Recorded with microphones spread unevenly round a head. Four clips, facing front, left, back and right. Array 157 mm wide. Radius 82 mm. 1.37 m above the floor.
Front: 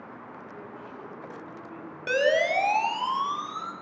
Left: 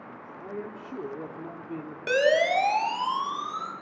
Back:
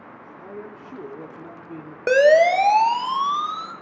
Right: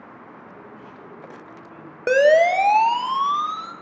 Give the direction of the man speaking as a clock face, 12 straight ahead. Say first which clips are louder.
Left 4 dB, back 4 dB; 8 o'clock.